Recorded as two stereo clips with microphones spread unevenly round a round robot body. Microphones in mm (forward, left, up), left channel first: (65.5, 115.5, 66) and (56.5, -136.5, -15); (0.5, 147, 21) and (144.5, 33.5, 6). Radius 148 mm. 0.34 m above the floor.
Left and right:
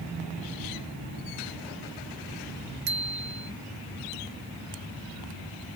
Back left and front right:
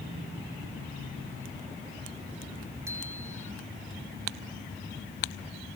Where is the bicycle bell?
120° right.